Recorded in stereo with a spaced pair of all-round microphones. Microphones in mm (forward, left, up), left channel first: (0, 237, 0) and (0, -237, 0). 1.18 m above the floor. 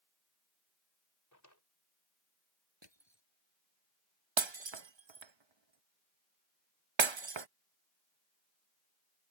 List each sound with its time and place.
1.3 s a drawer: 35° left (ahead or behind)
2.8 s crushing: 60° right (ahead or behind)
4.4 s breaking glass: 70° right (ahead or behind)